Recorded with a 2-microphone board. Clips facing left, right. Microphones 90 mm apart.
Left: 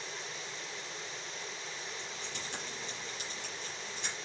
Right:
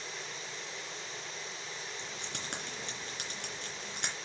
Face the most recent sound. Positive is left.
turn(degrees=-75)  # may be behind; listen again after turning